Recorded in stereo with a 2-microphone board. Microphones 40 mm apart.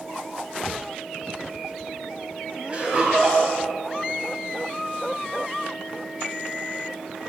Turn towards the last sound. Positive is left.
turn(degrees=-30)  # may be behind; listen again after turning